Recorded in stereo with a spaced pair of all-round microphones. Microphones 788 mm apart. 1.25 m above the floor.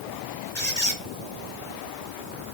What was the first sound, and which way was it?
A squeak, 55° left (ahead or behind).